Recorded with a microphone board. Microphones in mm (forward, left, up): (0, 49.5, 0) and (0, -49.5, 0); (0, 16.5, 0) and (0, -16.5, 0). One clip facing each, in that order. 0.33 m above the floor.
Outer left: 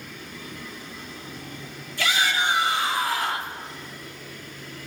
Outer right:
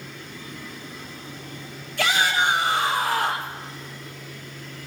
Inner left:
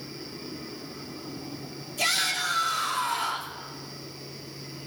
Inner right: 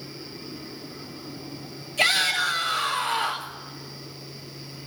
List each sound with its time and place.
2.0 s a shout: 65° right (ahead or behind), 5.5 m